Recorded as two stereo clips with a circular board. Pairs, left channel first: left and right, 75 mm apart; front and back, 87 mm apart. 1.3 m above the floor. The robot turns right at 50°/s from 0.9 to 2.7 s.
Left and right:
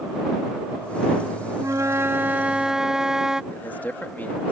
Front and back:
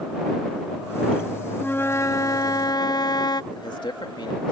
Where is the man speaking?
25° left.